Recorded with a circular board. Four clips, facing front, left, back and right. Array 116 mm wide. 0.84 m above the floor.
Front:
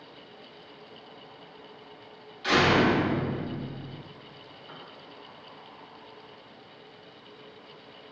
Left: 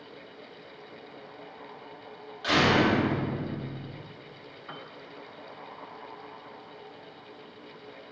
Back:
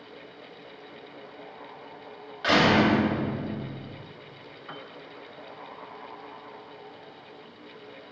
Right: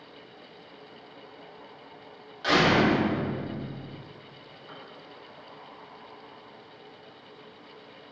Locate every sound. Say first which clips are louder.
2.4 s a door slam: right 1 dB, back 2 dB; 170° right, 2.5 m
4.7 s a piano: left 3 dB, back 5 dB; 140° left, 1.0 m